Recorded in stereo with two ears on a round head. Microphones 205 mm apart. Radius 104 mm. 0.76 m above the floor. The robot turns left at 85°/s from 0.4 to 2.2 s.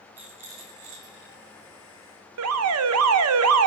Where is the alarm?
65° right (ahead or behind), 0.5 m.